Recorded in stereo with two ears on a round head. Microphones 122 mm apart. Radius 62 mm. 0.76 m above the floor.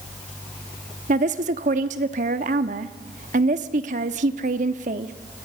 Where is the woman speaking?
55° right (ahead or behind), 1.1 m.